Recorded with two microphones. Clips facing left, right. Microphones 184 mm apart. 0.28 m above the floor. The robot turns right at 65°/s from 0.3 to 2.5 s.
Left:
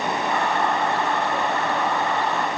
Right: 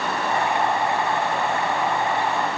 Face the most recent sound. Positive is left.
No sound to turn to.